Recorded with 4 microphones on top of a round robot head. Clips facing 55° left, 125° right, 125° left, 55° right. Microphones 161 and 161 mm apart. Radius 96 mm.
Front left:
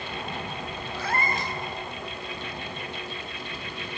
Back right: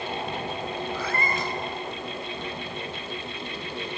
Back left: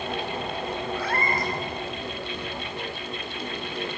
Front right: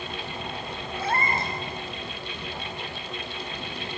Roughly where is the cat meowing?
Behind right.